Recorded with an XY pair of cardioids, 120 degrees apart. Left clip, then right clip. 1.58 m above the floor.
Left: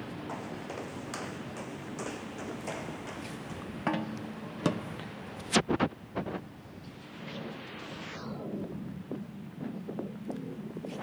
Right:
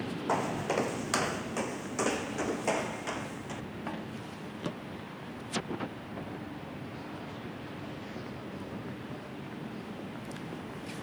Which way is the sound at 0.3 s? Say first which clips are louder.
Right 12 dB; 60° right.